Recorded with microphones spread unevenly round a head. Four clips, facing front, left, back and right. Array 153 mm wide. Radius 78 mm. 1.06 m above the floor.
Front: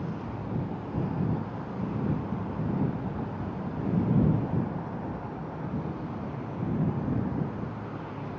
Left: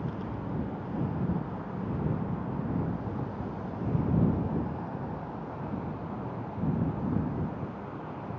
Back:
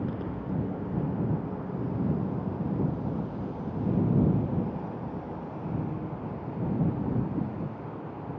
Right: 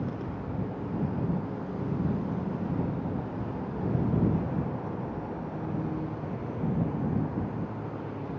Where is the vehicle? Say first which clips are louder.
Right 1 dB, back 2 dB; 150° right; by 8.4 s 100° right.